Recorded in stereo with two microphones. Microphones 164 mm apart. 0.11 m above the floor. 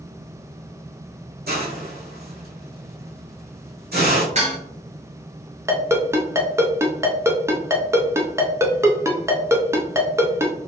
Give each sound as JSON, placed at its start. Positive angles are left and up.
{"t": 1.5, "sound": "a hiss", "side_deg": -75, "distance_m": 1.1}
{"t": 4.3, "sound": "dishes clattering", "side_deg": -45, "distance_m": 1.5}
{"t": 5.7, "sound": "a ringtone", "side_deg": -15, "distance_m": 0.6}